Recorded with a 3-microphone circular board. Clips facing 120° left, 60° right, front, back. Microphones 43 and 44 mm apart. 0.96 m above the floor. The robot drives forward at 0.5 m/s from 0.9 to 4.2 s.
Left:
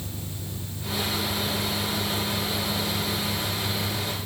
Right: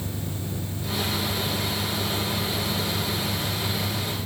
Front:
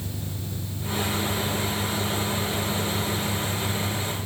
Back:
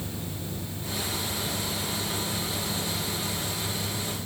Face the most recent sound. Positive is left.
turn(degrees=-25)